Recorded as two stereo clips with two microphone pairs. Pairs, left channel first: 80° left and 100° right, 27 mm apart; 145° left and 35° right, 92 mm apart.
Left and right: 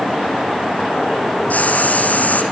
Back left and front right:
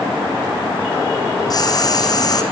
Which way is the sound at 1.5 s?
100° left.